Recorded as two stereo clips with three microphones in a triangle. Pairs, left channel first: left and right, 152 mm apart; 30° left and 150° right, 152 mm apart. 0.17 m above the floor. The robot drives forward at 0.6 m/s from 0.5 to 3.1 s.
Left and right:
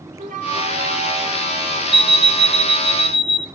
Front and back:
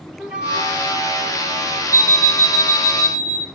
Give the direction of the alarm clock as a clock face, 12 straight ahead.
5 o'clock.